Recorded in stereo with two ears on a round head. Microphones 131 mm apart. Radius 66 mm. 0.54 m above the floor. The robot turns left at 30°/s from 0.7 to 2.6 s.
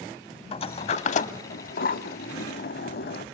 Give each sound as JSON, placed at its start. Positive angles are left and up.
{"t": 0.5, "sound": "a sliding door", "side_deg": 40, "distance_m": 0.7}